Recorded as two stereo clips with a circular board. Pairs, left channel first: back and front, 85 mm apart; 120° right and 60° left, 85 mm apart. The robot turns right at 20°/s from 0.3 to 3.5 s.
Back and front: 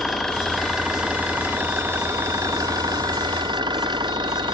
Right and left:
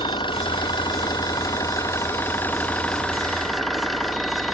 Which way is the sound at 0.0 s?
95° right.